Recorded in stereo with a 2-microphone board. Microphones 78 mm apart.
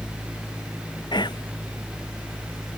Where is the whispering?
65° left (ahead or behind).